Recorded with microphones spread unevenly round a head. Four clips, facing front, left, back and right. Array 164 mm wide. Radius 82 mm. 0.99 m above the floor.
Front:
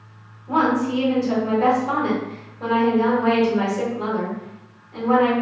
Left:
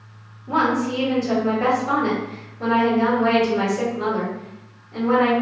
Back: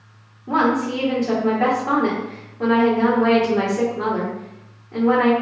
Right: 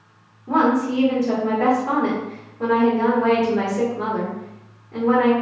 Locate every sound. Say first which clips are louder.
0.5 s a woman speaking: right 2 dB, even; 155° right, 1.7 m